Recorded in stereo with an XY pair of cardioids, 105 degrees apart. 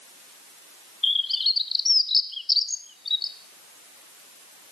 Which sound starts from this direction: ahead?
A bird, at 1.0 s.